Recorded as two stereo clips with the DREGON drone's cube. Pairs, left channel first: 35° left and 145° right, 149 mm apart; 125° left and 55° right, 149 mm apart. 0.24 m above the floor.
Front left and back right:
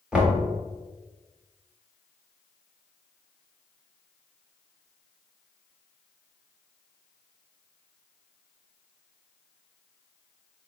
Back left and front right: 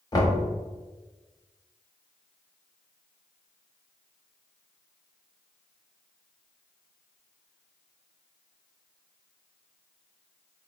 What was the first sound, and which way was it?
Knocking, 140° left.